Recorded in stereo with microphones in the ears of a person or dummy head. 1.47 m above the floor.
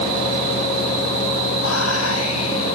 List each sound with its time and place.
1.6 s whispering: 80° left, 1.0 m